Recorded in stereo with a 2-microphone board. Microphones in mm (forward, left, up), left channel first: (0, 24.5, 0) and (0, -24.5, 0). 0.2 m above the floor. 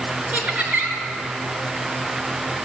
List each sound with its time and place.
0.3 s laughter: 30° right (ahead or behind), 3.5 m